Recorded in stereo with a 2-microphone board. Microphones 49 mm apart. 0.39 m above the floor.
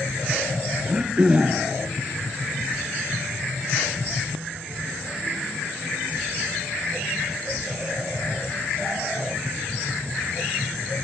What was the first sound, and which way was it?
Throat clearing, 20° right (ahead or behind).